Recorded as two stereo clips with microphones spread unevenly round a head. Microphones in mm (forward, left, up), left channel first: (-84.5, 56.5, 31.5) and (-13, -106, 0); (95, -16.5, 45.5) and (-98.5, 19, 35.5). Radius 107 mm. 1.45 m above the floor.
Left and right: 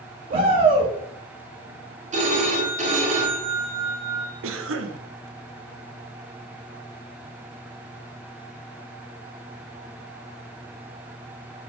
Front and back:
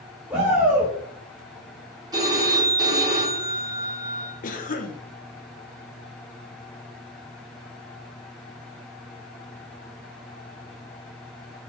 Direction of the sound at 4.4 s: 60° right.